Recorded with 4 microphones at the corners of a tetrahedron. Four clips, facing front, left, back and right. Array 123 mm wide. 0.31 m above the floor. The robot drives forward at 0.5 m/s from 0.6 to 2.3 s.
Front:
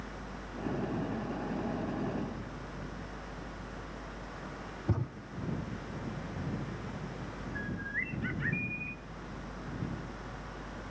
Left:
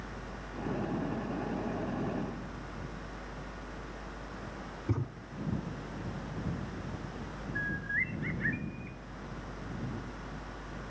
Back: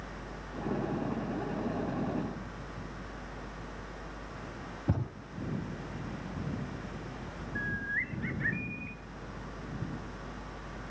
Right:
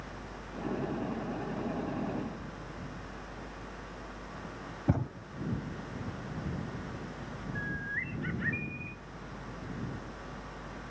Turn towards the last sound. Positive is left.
turn(degrees=-50)